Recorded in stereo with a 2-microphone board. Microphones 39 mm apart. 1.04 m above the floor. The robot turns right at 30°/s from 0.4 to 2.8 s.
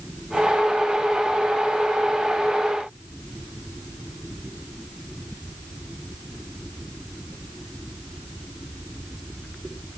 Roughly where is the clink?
I don't hear a clink.